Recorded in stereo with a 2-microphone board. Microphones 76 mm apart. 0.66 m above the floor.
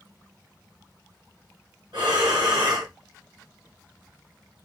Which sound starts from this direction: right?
Breathing, at 1.9 s.